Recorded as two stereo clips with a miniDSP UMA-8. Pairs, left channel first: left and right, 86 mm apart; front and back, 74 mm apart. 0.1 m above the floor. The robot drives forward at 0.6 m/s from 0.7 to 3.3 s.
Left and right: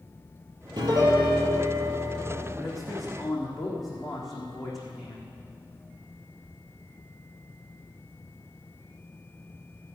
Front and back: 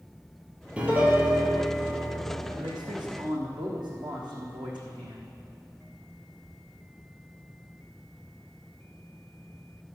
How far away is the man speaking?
About 4 m.